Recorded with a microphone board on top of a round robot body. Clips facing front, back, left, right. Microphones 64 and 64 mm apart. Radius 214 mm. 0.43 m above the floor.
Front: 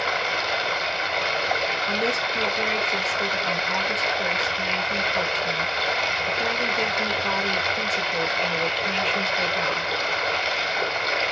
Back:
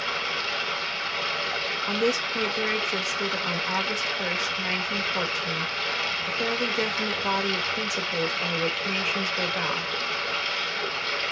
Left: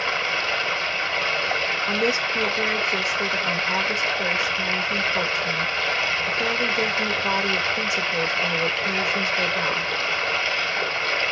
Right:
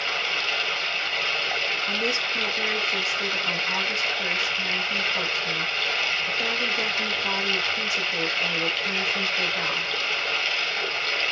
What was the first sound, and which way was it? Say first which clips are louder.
Running water: front 5 dB, left 3 dB; 30° left.